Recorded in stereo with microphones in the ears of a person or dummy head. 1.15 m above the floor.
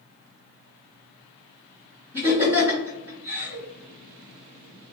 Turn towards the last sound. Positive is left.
turn(degrees=-10)  # may be behind; listen again after turning